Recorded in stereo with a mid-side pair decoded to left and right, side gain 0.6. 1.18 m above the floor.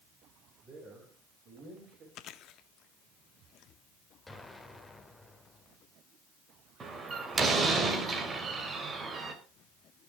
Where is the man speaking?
35° right, 7 m; by 2.0 s 50° right, 7 m.